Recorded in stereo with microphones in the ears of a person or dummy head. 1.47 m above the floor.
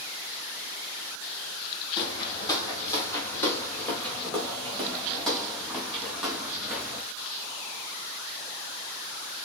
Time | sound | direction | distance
2.0 | footsteps | 25° left (ahead or behind) | 3 m